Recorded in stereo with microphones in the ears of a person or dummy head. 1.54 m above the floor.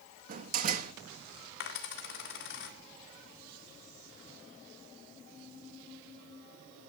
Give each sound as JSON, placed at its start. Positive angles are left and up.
{"t": 0.3, "sound": "a door slam", "side_deg": -45, "distance_m": 1.6}
{"t": 1.6, "sound": "a dropped coin", "side_deg": 60, "distance_m": 2.0}